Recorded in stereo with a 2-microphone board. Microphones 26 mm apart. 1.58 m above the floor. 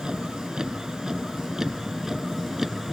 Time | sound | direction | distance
0.0 | a vehicle | 30° right (ahead or behind) | ?